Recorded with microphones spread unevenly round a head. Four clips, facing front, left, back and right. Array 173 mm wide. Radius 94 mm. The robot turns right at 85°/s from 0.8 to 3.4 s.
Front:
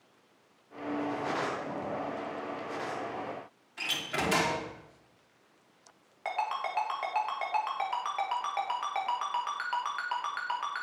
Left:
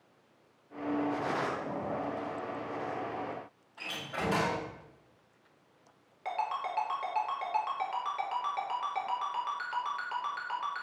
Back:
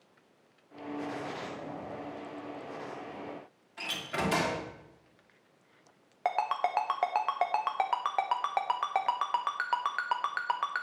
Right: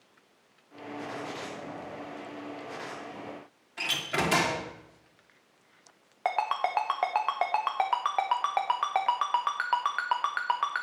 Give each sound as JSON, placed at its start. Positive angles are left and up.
{"t": 3.8, "sound": "a door slam", "azimuth_deg": -85, "distance_m": 2.5}
{"t": 6.2, "sound": "a ringtone", "azimuth_deg": -145, "distance_m": 1.1}